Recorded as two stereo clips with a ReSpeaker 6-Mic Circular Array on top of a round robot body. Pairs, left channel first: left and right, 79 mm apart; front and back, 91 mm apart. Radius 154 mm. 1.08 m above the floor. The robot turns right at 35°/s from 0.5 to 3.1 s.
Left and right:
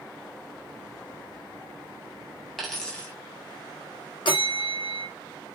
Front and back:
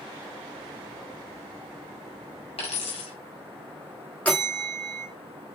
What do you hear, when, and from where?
2.6 s a dropped coin: straight ahead, 3 m; by 3.1 s 20° left, 3 m
4.2 s a bell: 75° left, 0.7 m